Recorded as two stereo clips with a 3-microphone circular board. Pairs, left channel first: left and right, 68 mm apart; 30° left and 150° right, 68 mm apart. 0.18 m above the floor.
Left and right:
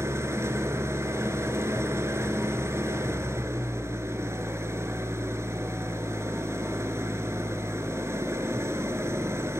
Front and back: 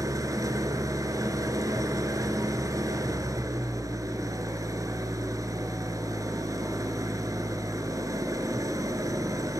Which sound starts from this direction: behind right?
An engine running, at 0.0 s.